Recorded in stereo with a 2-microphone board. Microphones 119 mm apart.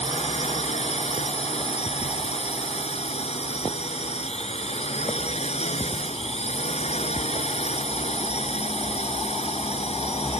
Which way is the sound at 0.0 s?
65° left (ahead or behind).